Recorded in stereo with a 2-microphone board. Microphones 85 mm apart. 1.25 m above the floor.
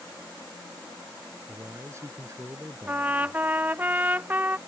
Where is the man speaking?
35° right (ahead or behind); by 3.4 s 30° right (ahead or behind).